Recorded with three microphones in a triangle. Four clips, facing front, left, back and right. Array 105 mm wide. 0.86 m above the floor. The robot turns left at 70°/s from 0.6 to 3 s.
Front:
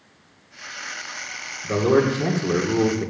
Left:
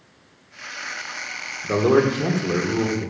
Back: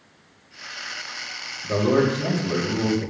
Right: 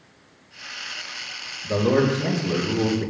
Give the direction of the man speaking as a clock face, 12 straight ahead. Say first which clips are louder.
Left 2 dB, front 1 dB; 9 o'clock.